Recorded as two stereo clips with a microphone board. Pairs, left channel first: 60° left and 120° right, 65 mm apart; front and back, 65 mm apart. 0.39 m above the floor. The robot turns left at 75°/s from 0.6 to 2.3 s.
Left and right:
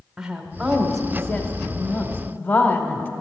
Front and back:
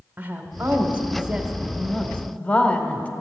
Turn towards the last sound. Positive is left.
turn(degrees=40)